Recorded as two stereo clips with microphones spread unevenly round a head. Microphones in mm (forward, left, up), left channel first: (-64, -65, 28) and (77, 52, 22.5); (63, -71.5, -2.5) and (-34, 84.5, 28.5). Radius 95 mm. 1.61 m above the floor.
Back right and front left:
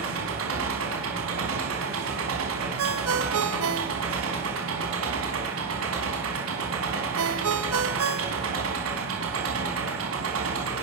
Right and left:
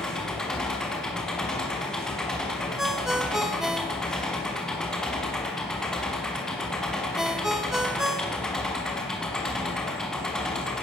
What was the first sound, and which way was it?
An engine running, 30° left.